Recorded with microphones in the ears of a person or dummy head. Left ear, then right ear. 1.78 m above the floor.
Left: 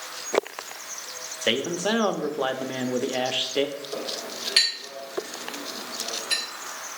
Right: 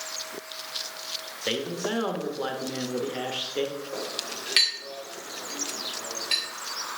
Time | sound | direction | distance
1.4 | a man speaking | 25° left (ahead or behind) | 0.6 m
3.9 | a clink | 15° right (ahead or behind) | 2.5 m